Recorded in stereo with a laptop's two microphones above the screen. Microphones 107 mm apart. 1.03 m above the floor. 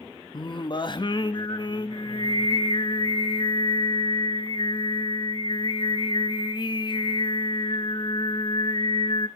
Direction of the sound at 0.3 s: 40° left (ahead or behind).